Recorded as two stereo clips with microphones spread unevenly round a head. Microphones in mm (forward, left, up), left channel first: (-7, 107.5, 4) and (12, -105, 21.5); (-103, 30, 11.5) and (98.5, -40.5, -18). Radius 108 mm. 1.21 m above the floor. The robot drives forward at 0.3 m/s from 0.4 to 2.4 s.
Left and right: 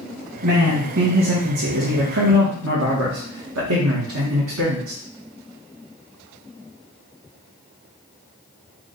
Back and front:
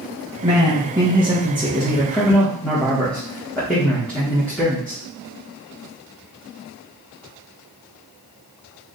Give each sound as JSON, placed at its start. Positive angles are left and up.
{"t": 0.4, "sound": "a man speaking", "azimuth_deg": -85, "distance_m": 1.3}